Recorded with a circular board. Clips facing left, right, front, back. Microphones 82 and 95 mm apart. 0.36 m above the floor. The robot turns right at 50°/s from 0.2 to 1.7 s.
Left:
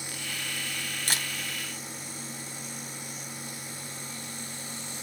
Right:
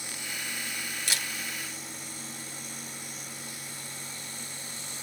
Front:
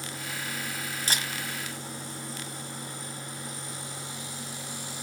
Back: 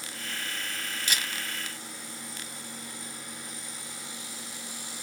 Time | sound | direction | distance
1.1 | a camera shutter | 45° left | 1.9 m